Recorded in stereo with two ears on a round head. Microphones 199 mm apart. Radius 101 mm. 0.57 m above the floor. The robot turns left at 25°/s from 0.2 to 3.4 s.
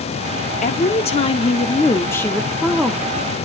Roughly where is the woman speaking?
Ahead left.